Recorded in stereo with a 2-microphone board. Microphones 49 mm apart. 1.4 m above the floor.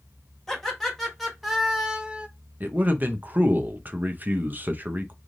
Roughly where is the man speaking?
Right.